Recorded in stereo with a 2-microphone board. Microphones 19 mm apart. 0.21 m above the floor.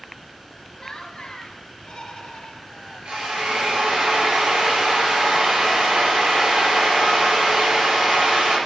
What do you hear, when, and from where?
0.8 s laughter: 30° left (ahead or behind), 1.3 m; by 3.0 s 50° left (ahead or behind), 2.5 m
3.0 s a drill: 70° right (ahead or behind), 5 m